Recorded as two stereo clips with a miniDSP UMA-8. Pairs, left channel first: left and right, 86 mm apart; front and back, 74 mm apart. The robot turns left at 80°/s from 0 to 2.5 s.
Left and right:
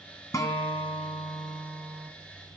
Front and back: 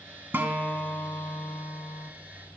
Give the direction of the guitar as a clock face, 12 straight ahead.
8 o'clock.